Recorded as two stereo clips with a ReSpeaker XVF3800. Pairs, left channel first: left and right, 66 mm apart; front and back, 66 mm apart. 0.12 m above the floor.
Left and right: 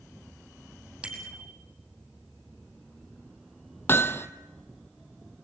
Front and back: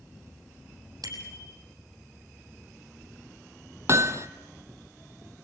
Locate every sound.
1.0 s a bicycle bell: 160° right, 3 m
3.9 s hammering: 140° left, 0.8 m